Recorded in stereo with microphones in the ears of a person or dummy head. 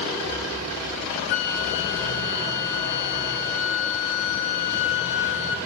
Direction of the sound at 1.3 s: 35° left (ahead or behind).